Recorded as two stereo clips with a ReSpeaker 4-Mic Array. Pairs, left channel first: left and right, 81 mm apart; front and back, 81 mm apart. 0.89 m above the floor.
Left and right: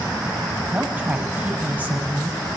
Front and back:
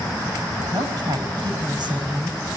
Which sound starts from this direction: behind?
A woman speaking, at 0.7 s.